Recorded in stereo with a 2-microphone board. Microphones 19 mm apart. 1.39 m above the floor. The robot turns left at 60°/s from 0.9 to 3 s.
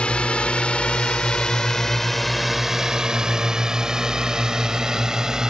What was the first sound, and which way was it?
A drone, 85° left.